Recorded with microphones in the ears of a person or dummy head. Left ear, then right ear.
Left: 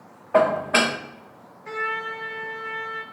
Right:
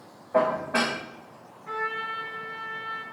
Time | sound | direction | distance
0.3 | dishes clattering | 45° left (ahead or behind) | 0.6 m
1.7 | a trumpet | 65° left (ahead or behind) | 1.0 m